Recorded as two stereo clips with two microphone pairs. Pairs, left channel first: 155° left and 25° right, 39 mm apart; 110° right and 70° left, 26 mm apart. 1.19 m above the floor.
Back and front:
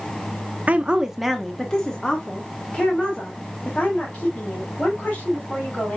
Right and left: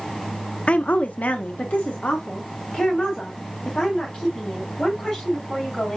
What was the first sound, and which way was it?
A woman speaking, 75° right.